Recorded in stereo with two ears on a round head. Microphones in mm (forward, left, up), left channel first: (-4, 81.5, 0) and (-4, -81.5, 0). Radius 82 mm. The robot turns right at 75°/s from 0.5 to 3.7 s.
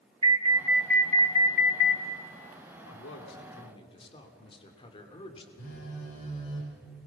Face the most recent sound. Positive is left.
turn(degrees=85)